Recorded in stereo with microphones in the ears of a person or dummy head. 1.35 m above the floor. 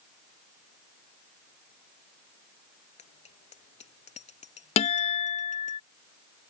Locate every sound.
3.0 s a bicycle bell: 40° left (ahead or behind); by 5.8 s 45° left (ahead or behind)
4.8 s a guitar: 30° left (ahead or behind)